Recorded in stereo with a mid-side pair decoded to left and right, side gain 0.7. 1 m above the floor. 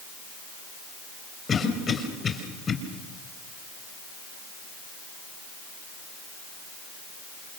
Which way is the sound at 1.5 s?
30° left.